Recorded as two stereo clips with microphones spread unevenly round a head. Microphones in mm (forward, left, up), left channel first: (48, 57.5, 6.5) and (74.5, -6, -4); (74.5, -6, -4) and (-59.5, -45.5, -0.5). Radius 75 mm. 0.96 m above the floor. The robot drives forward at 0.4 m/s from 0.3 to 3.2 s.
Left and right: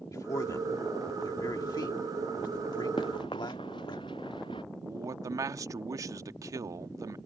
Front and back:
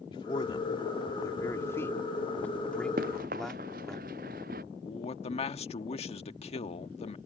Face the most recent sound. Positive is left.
turn(degrees=-30)